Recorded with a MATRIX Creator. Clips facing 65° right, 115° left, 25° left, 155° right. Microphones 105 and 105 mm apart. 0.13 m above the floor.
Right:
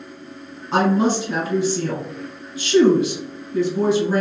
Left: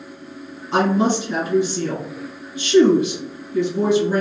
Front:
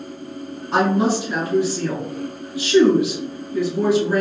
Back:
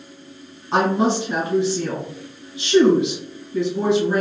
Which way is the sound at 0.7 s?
105° right.